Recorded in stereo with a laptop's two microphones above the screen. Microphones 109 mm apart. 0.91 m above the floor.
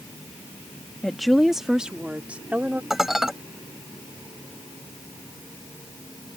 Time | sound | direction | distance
1.0 | a woman speaking | 5° left (ahead or behind) | ?
2.9 | dishes clattering | 5° right (ahead or behind) | ?